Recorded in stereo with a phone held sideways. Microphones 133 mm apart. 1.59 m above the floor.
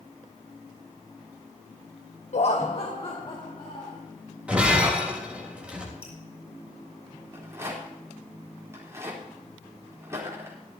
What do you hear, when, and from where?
2.3 s laughter: 60° left (ahead or behind), 0.8 m; by 4.0 s 40° left (ahead or behind), 3.5 m
4.5 s breaking glass: 10° right (ahead or behind), 3.5 m
6.0 s dripping: 10° right (ahead or behind), 6 m
7.3 s a rattle: 20° right (ahead or behind), 3.5 m